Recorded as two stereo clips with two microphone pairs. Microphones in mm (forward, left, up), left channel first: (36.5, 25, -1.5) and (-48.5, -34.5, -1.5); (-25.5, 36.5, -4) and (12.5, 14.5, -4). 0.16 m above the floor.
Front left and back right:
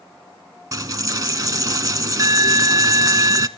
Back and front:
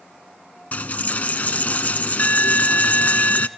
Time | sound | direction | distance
0.7 | a dropped coin | straight behind | 0.6 m